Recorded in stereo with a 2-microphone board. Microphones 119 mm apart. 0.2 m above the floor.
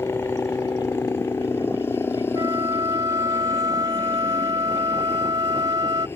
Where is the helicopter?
20° left (ahead or behind).